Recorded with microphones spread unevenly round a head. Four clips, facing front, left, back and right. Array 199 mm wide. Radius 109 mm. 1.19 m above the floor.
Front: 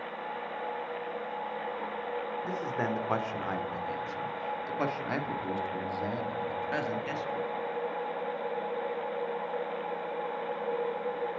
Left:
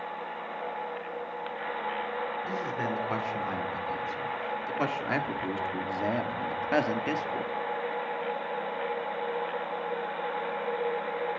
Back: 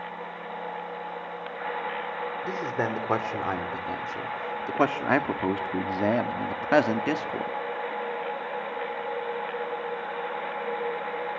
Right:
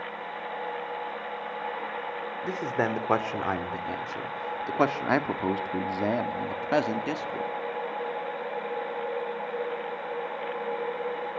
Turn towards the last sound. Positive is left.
turn(degrees=180)